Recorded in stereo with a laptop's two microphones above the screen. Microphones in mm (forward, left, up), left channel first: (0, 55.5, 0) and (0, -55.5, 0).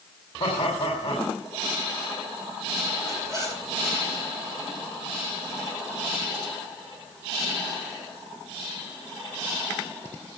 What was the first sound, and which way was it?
Laughter, 75° left (ahead or behind).